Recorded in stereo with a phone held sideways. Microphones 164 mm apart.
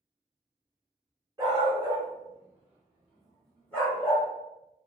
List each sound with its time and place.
1.4 s a dog barking: 25° right (ahead or behind), 1.5 m; by 4.3 s 15° left (ahead or behind), 1.5 m